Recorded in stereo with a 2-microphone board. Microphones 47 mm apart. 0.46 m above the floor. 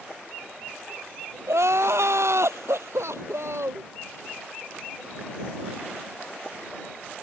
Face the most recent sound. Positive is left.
turn(degrees=-80)